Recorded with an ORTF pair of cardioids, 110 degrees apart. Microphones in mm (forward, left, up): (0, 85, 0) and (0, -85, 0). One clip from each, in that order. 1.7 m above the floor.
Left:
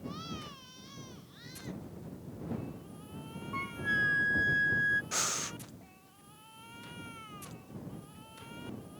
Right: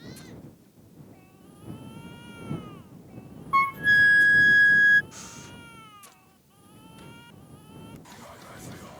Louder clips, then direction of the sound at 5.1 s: Left 10 dB; 60° left.